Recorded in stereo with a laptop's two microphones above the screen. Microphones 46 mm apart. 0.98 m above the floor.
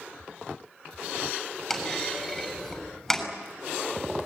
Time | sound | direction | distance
1.7 | a clunk | 5° left (ahead or behind) | 6.5 m